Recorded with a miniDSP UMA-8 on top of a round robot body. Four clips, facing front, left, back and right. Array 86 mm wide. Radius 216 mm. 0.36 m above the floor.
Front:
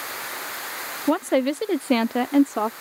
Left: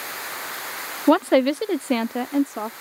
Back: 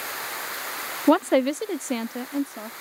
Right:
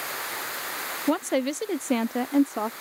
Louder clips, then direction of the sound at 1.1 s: Left 8 dB, back 2 dB; 120° left.